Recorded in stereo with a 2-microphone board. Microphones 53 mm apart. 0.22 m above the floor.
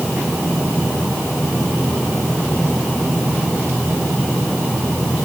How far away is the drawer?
I don't hear a drawer.